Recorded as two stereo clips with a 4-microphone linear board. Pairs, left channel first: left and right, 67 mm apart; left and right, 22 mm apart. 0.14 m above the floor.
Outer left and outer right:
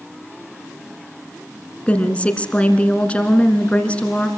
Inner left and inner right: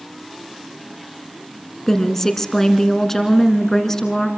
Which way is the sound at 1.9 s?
20° left (ahead or behind).